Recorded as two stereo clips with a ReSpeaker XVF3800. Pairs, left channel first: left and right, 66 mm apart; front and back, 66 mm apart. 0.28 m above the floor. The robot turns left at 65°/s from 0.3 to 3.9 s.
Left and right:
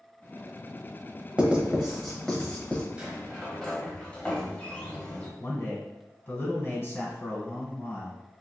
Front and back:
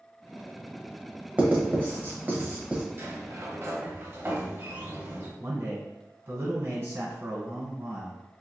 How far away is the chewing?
I don't hear chewing.